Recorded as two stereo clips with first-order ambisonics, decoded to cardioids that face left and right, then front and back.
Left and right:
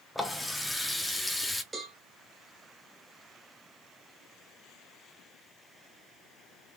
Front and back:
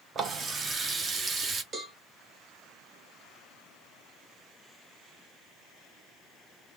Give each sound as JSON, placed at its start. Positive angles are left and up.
{"t": 0.1, "sound": "a running tap", "azimuth_deg": 170, "distance_m": 0.7}
{"t": 1.7, "sound": "a cowbell", "azimuth_deg": -155, "distance_m": 1.1}